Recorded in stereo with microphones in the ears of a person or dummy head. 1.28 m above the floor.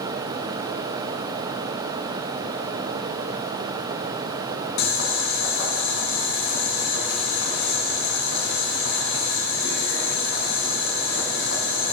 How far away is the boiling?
About 3 m.